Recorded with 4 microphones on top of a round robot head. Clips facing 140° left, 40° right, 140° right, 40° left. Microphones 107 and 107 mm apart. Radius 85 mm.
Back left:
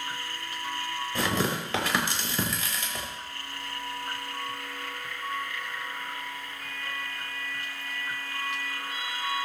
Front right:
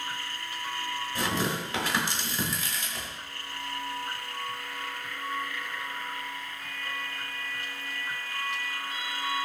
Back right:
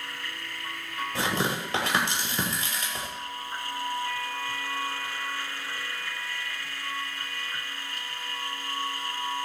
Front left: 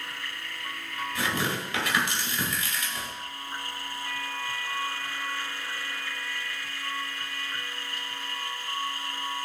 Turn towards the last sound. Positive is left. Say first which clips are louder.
# back left 2 dB, back right 2 dB
turn(degrees=160)